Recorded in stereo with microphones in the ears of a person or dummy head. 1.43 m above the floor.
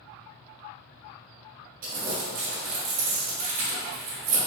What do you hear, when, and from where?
1.8 s crumpling: 40° right (ahead or behind), 1.7 m